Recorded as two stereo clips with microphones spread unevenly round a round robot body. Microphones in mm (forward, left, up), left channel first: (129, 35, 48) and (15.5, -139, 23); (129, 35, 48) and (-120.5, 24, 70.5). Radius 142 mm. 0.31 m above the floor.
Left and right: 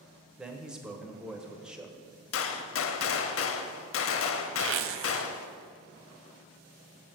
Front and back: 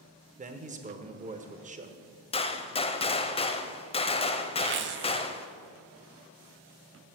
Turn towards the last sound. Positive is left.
turn(degrees=-130)